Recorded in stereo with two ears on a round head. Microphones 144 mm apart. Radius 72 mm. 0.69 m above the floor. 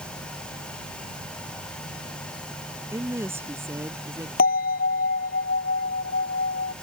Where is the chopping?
No chopping in this recording.